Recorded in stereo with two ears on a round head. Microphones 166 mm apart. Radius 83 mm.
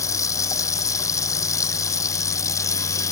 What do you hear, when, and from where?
0.0 s running water: 15° left (ahead or behind)